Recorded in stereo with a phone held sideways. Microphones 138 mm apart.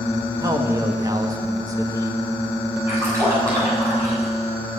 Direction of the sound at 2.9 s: 20° right (ahead or behind).